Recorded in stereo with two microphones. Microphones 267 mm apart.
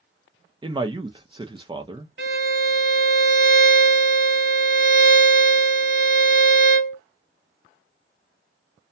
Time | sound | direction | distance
0.6 | a man speaking | 20° right (ahead or behind) | 0.5 m
2.2 | a violin | 45° right (ahead or behind) | 1.2 m